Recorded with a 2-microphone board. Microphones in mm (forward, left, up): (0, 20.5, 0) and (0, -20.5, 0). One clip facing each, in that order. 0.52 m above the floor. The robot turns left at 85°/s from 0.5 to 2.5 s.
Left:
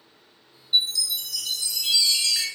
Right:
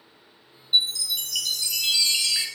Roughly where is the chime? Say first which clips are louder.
Right 1 dB; ahead.